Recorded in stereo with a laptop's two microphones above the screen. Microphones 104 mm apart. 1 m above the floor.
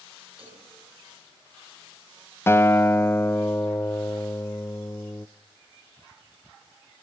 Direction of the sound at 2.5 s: 25° left (ahead or behind).